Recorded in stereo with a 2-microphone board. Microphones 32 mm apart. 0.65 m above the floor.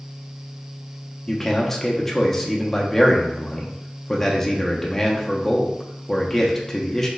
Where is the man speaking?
10° left (ahead or behind), 0.6 m.